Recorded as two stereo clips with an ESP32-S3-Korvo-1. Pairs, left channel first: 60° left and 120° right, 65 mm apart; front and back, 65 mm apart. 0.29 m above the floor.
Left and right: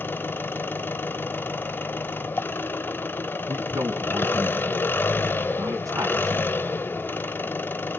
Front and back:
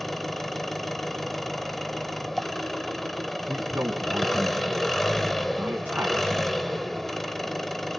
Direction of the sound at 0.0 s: 85° left.